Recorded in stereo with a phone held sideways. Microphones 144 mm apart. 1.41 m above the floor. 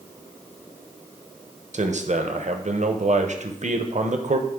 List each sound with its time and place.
1.7 s a man speaking: 55° right (ahead or behind), 0.7 m